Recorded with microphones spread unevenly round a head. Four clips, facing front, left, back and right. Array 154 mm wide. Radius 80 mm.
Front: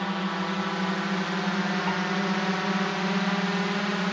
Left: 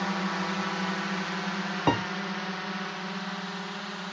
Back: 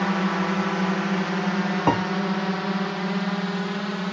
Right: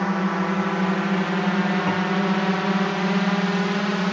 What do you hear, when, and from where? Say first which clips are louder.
0.0 s a drone: right 7 dB, back 5 dB; 130° right; by 4.1 s 95° right
1.9 s a piano: right 2 dB, back 7 dB; 155° left